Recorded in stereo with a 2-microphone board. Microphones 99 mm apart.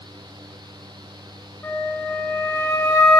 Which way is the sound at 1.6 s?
25° left (ahead or behind).